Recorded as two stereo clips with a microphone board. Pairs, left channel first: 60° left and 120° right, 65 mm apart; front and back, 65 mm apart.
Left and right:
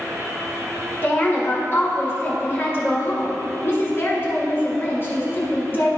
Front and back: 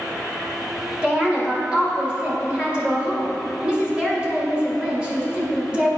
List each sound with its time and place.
1.0 s a woman speaking: 110° left, 1.8 m